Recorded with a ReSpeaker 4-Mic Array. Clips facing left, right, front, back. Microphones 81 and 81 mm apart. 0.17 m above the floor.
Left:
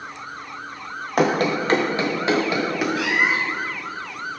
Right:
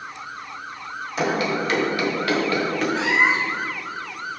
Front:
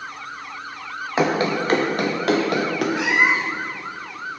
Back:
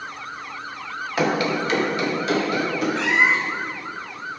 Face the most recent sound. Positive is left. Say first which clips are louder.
# right 4 dB, even
turn(degrees=-65)